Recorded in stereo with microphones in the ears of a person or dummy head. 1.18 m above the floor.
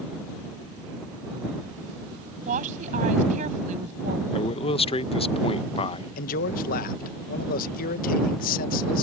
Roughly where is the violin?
I don't hear a violin.